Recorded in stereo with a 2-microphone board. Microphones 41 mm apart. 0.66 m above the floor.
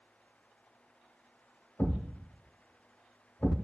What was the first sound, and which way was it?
A thud, 65° left (ahead or behind).